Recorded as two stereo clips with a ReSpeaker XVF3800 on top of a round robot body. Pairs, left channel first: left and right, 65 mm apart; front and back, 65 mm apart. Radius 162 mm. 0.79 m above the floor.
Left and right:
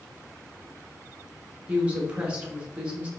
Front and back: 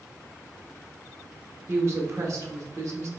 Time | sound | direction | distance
1.7 | a woman speaking | 155° right | 1.2 m